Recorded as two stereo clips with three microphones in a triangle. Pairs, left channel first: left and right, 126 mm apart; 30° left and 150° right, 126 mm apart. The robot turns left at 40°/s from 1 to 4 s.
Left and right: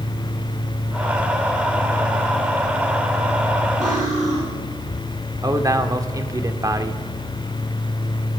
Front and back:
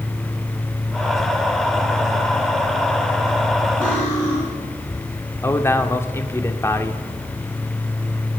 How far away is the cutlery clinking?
About 8 m.